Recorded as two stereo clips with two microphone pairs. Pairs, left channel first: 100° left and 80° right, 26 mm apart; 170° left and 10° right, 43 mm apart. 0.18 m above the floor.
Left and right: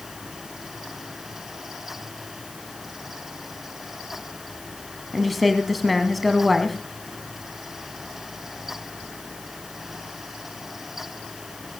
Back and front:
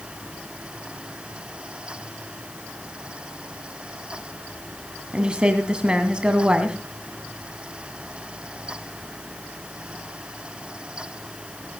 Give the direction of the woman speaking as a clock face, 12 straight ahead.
11 o'clock.